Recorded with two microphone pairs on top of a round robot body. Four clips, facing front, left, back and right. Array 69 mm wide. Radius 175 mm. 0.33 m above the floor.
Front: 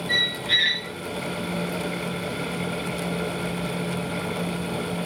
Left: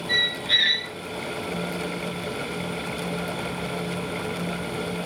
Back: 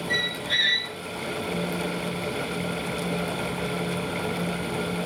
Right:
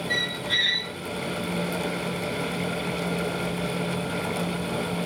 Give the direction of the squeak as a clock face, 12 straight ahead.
11 o'clock.